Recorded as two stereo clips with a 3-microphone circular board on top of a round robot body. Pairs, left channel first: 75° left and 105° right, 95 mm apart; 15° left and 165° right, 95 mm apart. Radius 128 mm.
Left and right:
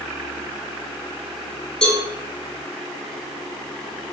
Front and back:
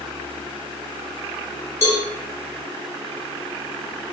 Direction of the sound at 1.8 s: 5° right.